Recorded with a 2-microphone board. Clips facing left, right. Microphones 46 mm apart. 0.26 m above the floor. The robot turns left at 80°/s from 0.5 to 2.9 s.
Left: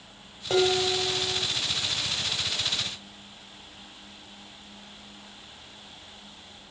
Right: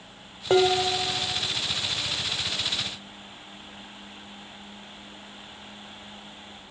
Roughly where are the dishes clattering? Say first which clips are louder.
Right 3 dB; right.